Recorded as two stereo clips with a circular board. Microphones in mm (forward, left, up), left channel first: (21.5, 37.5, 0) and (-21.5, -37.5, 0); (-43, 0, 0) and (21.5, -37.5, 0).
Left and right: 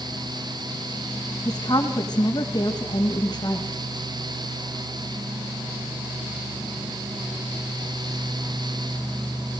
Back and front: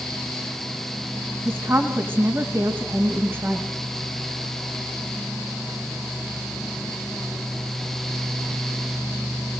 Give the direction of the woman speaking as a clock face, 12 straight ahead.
11 o'clock.